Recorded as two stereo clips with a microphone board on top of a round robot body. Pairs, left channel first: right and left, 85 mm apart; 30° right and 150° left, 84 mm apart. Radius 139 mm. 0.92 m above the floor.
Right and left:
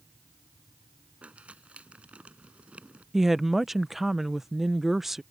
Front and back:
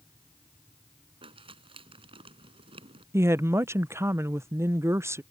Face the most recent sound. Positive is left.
turn(degrees=175)